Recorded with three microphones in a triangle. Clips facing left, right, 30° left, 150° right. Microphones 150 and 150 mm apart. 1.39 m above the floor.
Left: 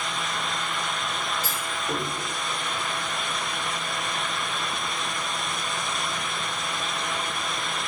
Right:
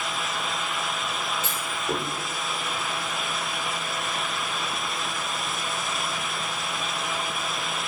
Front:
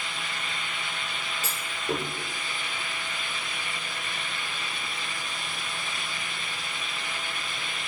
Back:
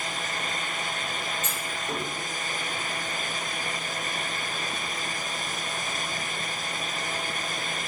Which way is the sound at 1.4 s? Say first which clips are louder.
Right 1 dB, front 1 dB; 25° right.